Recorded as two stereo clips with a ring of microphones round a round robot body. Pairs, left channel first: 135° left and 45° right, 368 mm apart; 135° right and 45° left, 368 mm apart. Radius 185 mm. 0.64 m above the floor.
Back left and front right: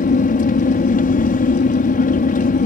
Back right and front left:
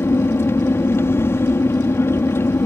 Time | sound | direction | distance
0.0 | an aircraft | 150° left | ?